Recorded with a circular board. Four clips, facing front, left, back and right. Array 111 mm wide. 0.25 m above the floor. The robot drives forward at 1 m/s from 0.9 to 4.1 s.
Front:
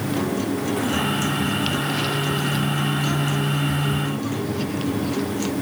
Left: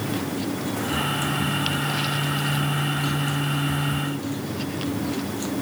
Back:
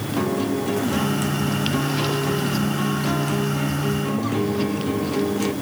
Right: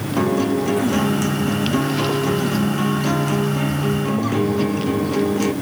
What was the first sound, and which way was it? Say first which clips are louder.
A guitar: right 9 dB, back 4 dB; 100° right.